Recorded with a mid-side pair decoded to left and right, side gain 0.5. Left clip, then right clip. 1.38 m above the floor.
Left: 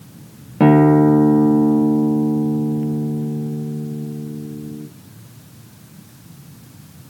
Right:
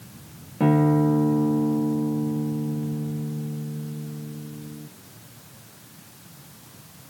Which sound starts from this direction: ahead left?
A guitar, at 0.6 s.